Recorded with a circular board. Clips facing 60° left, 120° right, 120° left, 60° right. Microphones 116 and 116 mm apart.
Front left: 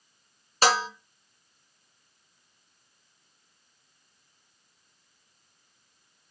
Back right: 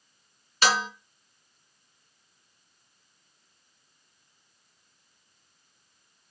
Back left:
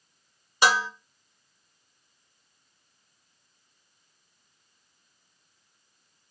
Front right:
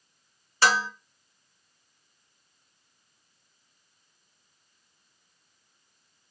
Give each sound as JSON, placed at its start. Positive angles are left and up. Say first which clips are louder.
{"t": 0.6, "sound": "dishes clattering", "louder": "front left 2 dB, back left 1 dB", "azimuth_deg": 60, "distance_m": 0.6}